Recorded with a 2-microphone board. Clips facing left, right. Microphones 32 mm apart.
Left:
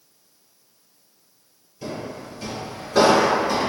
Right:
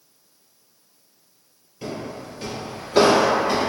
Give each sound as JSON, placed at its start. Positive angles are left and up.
{"t": 1.8, "sound": "footsteps", "side_deg": -20, "distance_m": 1.9}